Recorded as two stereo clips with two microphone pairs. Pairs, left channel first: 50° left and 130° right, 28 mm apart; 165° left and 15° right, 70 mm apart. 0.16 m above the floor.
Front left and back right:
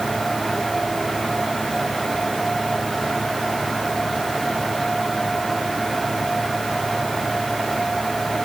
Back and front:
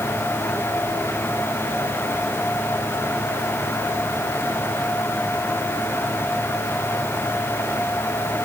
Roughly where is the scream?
No scream in this recording.